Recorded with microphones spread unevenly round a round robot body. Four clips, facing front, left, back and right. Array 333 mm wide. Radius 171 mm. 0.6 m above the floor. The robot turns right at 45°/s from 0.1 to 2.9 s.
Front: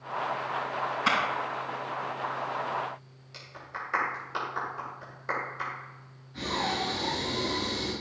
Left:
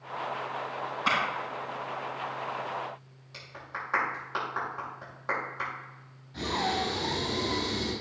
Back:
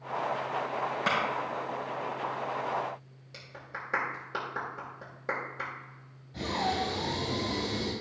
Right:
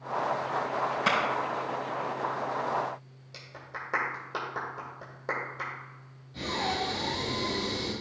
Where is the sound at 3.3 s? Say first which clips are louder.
Left 2 dB, front 3 dB; 135° right, 2.5 m.